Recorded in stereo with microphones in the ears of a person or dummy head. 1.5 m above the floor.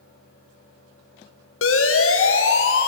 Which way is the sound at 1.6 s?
75° left (ahead or behind).